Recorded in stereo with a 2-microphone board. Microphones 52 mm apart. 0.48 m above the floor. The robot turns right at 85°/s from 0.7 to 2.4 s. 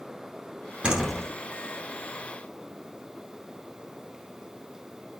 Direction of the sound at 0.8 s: 20° right.